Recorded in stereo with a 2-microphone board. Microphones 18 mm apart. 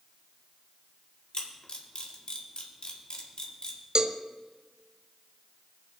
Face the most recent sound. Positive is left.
turn(degrees=-45)  # may be behind; listen again after turning